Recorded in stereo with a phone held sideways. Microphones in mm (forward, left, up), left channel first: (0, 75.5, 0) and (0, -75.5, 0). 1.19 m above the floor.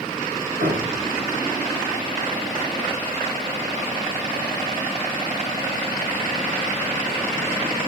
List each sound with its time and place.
0.6 s a thud: 80° right, 5.5 m